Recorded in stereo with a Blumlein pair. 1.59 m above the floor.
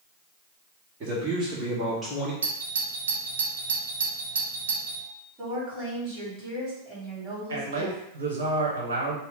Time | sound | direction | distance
1.0 | a man speaking | 35° right | 1.5 m
2.4 | a doorbell | 70° right | 0.7 m
5.4 | a woman speaking | 25° right | 1.9 m
7.5 | a man speaking | 65° right | 1.1 m